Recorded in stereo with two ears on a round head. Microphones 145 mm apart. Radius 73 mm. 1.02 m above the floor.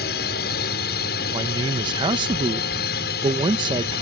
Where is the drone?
70° left (ahead or behind).